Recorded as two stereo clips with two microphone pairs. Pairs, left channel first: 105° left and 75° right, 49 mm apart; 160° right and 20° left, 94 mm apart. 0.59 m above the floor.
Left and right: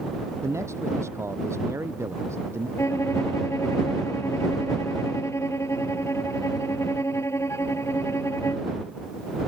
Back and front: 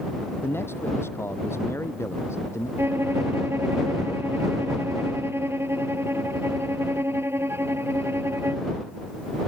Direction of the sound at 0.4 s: 95° right.